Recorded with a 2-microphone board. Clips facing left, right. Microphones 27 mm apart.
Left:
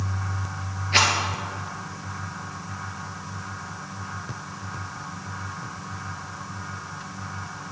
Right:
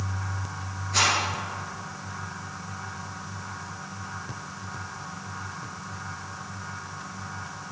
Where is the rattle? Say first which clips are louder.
Left 3 dB; 55° left (ahead or behind), 3 m.